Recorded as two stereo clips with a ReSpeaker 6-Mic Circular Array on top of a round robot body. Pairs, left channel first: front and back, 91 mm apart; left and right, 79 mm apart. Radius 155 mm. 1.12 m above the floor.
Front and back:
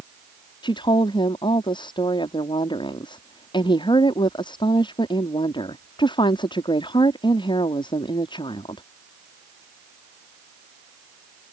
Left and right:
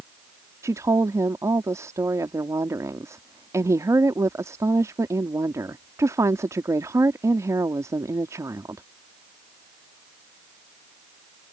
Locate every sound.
0.6 s a woman speaking: 35° right